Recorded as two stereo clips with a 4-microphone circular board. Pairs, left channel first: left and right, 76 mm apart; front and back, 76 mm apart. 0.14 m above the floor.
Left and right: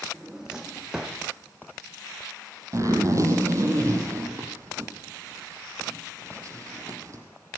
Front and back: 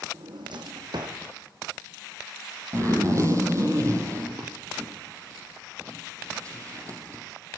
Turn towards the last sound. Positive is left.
turn(degrees=-135)